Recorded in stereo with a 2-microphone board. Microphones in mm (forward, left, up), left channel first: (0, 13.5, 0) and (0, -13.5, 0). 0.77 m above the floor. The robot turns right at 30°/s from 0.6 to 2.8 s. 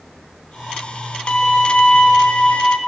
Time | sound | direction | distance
1.3 | a violin | 50° left | 0.8 m